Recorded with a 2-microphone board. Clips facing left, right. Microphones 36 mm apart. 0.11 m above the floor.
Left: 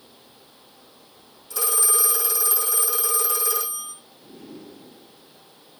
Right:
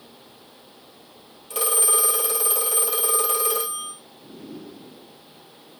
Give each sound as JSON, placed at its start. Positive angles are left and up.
{"t": 1.5, "sound": "a phone ringing", "side_deg": -55, "distance_m": 1.7}